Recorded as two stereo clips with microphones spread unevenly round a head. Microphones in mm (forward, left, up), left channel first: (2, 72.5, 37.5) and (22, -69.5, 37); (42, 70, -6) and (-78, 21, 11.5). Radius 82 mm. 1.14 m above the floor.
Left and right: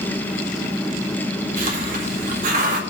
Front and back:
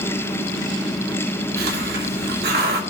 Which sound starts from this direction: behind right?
A hiss, at 1.6 s.